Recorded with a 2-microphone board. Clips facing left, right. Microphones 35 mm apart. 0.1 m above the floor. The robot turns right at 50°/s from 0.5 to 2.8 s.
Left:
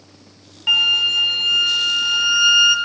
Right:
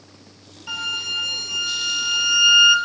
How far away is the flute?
About 0.6 m.